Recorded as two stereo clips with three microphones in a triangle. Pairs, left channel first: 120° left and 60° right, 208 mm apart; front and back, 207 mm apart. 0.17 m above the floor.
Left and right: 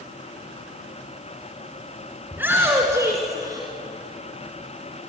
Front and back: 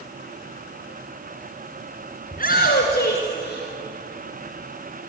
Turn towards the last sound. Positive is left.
turn(degrees=10)